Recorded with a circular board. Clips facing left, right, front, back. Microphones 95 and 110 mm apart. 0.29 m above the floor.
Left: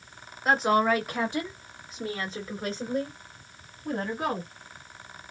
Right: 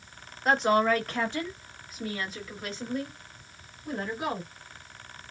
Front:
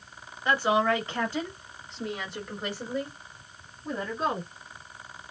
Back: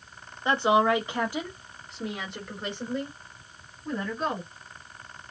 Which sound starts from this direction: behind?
A woman speaking, at 0.5 s.